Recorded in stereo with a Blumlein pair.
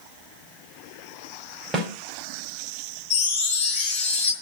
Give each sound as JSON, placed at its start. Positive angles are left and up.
{"t": 1.7, "sound": "a snare drum", "azimuth_deg": -10, "distance_m": 5.5}
{"t": 3.1, "sound": "a chime", "azimuth_deg": 35, "distance_m": 5.5}